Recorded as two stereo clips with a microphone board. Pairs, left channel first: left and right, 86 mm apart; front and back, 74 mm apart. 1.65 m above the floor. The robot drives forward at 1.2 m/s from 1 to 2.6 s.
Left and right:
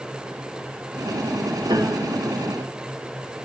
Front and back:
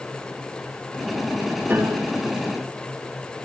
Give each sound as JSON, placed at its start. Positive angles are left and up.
{"t": 1.7, "sound": "a piano", "azimuth_deg": -115, "distance_m": 1.5}